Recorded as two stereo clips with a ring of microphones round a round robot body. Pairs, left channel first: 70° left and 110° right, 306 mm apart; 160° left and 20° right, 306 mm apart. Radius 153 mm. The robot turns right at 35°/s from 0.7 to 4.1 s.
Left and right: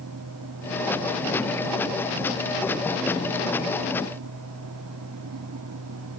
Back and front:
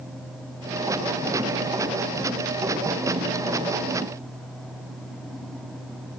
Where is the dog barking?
I don't hear a dog barking.